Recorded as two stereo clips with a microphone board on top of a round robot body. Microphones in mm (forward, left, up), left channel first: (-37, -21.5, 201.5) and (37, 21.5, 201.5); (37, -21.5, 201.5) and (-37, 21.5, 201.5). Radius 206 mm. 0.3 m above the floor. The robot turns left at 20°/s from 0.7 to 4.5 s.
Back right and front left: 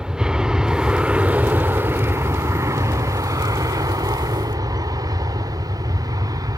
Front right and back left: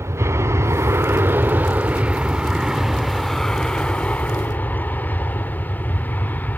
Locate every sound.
0.0 s an aircraft: 105° left; by 6.6 s 30° left